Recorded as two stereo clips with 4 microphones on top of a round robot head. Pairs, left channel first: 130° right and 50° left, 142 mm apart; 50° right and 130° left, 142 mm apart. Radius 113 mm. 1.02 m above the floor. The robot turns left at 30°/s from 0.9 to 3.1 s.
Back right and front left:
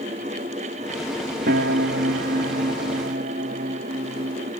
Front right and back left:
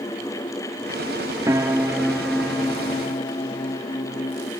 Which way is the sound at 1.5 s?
65° left.